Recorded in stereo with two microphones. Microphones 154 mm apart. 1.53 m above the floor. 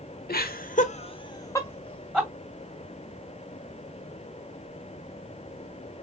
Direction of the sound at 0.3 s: 80° left.